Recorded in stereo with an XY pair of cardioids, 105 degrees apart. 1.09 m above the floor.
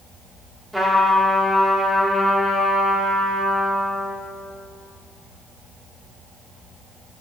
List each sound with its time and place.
0.7 s a trumpet: straight ahead, 1.8 m